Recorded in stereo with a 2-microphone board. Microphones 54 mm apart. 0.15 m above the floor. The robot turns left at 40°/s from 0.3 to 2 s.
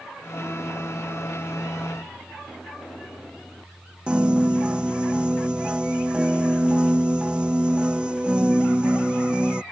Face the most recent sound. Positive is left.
turn(degrees=-15)  # may be behind; listen again after turning